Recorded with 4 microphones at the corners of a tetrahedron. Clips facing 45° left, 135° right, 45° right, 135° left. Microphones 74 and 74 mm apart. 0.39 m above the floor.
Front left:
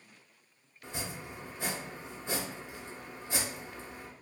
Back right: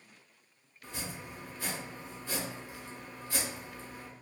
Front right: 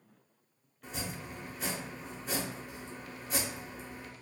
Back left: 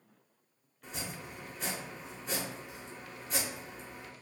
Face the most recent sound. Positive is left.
turn(degrees=35)